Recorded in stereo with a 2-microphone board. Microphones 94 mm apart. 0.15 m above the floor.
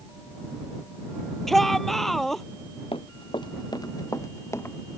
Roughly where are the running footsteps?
Left.